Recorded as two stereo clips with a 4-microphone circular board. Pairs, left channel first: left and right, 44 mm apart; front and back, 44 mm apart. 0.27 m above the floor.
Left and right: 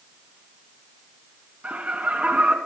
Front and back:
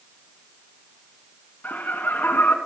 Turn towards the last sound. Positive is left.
turn(degrees=-35)